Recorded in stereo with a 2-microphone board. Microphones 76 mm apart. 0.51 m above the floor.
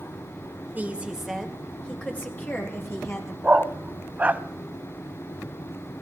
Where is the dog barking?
20° right (ahead or behind), 0.7 m.